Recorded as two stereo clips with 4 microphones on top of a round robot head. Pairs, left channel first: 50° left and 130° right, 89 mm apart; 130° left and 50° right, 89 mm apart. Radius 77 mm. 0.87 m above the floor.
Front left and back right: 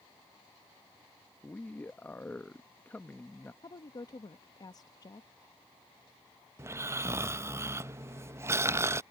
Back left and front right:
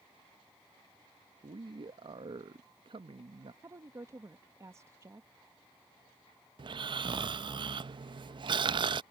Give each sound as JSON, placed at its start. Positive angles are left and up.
{"t": 1.4, "sound": "a man speaking", "azimuth_deg": -25}
{"t": 3.6, "sound": "a woman speaking", "azimuth_deg": 5}
{"t": 6.6, "sound": "snoring", "azimuth_deg": -70}